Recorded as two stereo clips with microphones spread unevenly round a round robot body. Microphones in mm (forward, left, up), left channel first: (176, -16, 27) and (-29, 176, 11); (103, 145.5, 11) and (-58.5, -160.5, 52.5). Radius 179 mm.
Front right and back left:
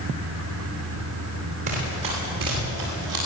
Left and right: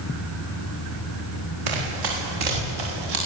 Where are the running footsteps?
150° right, 9 m; by 3.2 s 145° right, 10.5 m.